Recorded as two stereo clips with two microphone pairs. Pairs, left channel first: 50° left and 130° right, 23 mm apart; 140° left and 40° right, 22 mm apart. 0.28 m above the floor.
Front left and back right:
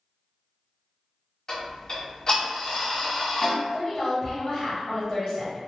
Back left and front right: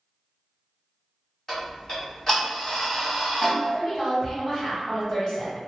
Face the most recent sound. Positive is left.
turn(degrees=90)